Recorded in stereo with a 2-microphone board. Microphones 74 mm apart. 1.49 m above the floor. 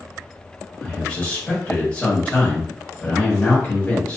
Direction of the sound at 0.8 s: 25° left (ahead or behind).